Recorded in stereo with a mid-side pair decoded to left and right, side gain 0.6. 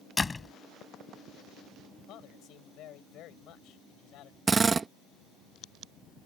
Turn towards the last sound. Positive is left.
turn(degrees=-30)